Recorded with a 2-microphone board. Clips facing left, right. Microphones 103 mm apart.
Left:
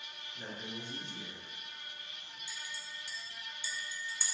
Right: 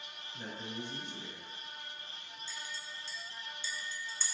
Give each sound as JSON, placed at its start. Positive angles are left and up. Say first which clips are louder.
{"t": 0.3, "sound": "a man speaking", "louder": "right 2 dB", "side_deg": -40, "distance_m": 1.9}
{"t": 2.5, "sound": "a clink", "louder": "right 1 dB", "side_deg": 15, "distance_m": 0.6}